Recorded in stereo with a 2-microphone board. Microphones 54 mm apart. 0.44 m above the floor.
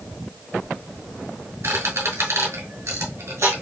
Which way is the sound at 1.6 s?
65° right (ahead or behind).